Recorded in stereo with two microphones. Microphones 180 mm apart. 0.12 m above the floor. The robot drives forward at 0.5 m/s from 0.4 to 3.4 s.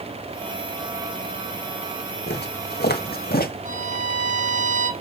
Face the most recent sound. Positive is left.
turn(degrees=-45)  # may be behind; listen again after turning